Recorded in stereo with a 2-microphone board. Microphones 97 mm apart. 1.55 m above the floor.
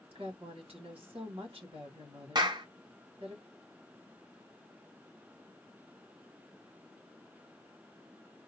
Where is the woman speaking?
75° right (ahead or behind), 2.5 m.